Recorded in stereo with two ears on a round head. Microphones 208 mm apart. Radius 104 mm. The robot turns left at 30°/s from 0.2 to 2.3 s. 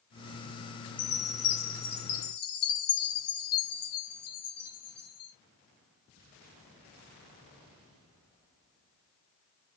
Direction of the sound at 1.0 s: 140° left.